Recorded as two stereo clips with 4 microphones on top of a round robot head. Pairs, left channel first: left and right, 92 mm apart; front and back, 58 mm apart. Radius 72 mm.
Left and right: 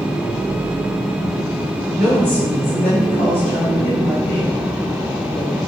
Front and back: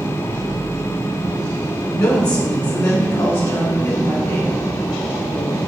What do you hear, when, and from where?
2.0 s a woman speaking: 5° left, 1.8 m; by 5.6 s 30° left, 3.5 m